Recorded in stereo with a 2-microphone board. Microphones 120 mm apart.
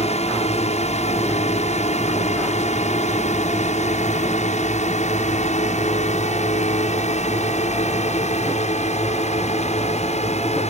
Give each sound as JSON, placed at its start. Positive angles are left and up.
{"t": 0.0, "sound": "a drone", "side_deg": 65}